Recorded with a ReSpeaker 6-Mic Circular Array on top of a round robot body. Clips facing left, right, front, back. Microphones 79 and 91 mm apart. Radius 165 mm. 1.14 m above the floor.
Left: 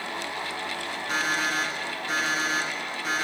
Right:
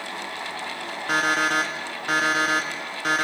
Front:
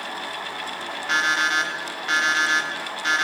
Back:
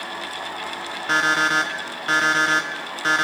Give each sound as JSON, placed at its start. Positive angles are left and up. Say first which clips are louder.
{"t": 1.1, "sound": "an alarm clock", "louder": "right 6 dB, back 3 dB", "azimuth_deg": -125, "distance_m": 0.9}